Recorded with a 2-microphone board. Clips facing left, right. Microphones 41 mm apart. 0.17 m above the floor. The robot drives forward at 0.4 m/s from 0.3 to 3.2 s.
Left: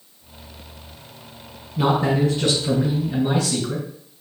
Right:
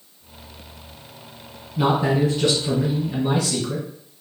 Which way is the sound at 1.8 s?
5° right (ahead or behind).